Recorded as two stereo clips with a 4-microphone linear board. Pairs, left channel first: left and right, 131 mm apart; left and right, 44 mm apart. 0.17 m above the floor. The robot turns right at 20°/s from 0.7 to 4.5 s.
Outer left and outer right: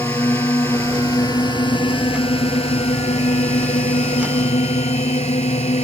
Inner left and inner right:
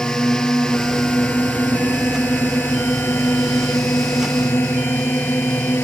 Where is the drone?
25° left; by 5.9 s 100° left.